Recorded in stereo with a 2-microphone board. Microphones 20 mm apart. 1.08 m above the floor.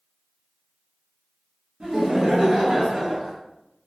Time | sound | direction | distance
1.8 | laughter | 70° right (ahead or behind) | 1.5 m